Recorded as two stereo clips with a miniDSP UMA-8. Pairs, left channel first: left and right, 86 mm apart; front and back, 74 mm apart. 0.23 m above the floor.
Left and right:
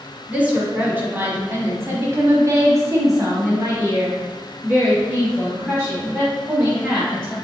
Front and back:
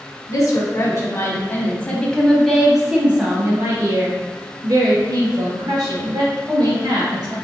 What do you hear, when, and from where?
0.3 s a woman speaking: 20° right, 1.6 m; by 7.3 s 155° right, 3 m